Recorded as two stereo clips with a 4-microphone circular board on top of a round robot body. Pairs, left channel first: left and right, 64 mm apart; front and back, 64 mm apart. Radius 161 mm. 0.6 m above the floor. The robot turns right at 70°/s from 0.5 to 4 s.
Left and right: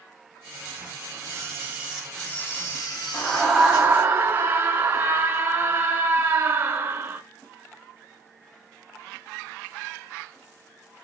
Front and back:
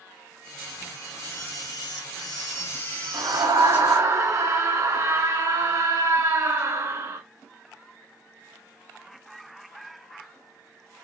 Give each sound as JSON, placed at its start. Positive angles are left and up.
{"t": 1.2, "sound": "a camera shutter", "azimuth_deg": -55, "distance_m": 3.0}
{"t": 3.1, "sound": "a scream", "azimuth_deg": 155, "distance_m": 1.6}